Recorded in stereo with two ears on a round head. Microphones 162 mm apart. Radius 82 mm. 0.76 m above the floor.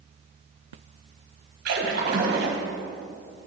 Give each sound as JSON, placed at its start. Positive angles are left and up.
{"t": 1.6, "sound": "a splash", "side_deg": -65, "distance_m": 1.8}